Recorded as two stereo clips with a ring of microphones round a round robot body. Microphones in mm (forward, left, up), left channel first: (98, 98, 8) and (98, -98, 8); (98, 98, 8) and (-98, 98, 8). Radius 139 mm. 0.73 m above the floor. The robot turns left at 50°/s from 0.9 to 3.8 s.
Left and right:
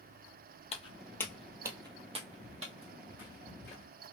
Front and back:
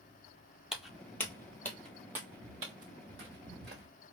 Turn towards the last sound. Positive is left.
turn(degrees=160)